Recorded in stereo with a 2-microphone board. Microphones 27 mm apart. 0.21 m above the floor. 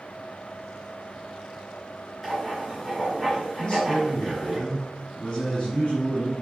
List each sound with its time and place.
2.2 s writing: centre (ahead or behind), 3 m
3.6 s a man speaking: 30° left (ahead or behind), 2.5 m